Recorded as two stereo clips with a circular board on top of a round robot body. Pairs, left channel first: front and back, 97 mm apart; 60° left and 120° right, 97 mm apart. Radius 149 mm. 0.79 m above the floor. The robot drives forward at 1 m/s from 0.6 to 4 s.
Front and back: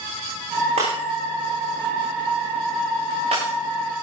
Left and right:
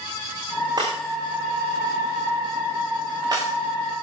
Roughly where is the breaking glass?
Behind.